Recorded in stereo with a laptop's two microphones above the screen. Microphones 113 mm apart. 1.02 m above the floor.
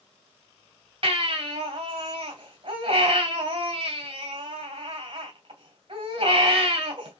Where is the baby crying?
50° right (ahead or behind), 2.0 m.